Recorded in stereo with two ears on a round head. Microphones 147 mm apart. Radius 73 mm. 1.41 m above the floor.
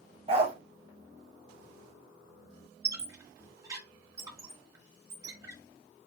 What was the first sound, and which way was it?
A dog barking, 35° right (ahead or behind).